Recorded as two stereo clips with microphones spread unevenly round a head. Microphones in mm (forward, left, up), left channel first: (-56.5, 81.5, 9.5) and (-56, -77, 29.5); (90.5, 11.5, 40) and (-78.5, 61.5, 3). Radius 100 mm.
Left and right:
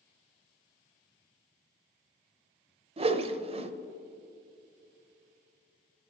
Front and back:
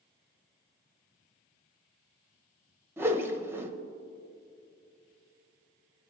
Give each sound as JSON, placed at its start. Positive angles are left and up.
{"t": 3.0, "sound": "a whoosh", "azimuth_deg": -135, "distance_m": 0.6}